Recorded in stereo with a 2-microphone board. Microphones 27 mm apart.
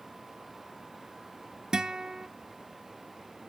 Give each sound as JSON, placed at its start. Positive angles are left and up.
{"t": 1.7, "sound": "a guitar", "side_deg": -30, "distance_m": 0.6}